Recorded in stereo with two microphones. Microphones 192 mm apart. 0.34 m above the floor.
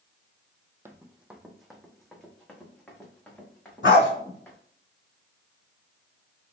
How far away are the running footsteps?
About 0.5 m.